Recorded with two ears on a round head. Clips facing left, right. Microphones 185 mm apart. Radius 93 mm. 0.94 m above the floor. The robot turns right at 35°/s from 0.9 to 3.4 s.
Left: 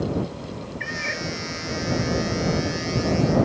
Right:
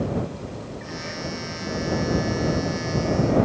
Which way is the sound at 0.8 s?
90° left.